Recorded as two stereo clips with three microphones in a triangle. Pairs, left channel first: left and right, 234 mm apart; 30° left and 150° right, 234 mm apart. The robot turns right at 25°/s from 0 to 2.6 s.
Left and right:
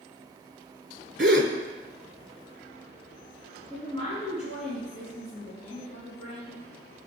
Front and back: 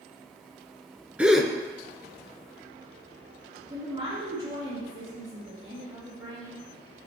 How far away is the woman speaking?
About 2.5 m.